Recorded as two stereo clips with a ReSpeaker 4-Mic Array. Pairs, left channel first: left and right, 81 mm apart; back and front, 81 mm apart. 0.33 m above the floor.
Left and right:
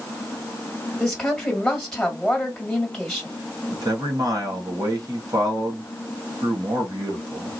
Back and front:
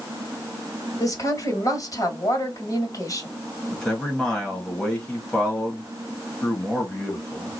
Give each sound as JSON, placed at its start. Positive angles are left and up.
{"t": 1.0, "sound": "a woman speaking", "azimuth_deg": 180, "distance_m": 2.0}
{"t": 3.7, "sound": "a man speaking", "azimuth_deg": -100, "distance_m": 1.9}